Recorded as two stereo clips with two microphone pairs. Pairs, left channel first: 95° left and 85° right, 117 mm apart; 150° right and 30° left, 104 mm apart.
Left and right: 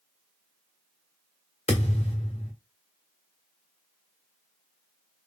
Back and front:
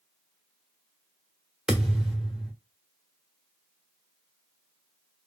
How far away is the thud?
About 1.4 m.